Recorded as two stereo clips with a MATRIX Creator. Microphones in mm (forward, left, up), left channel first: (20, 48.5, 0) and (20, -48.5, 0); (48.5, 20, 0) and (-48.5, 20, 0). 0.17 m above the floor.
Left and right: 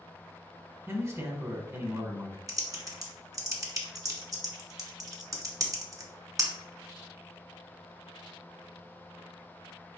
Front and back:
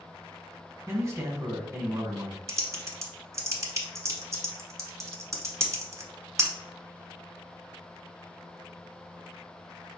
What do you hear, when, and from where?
0.9 s a man speaking: 135° right, 1.4 m
2.5 s typing on a keyboard: 130° right, 1.0 m